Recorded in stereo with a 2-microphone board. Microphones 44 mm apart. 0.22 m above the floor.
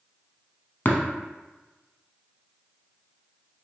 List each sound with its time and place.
0.8 s tapping: 50° left (ahead or behind), 0.7 m